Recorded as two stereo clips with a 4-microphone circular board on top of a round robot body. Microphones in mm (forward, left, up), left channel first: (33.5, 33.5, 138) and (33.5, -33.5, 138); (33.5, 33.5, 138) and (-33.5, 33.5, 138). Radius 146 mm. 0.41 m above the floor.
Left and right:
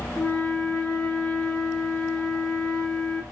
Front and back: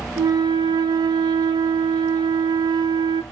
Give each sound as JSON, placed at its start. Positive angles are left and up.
{"t": 0.2, "sound": "a flute", "azimuth_deg": 170, "distance_m": 0.5}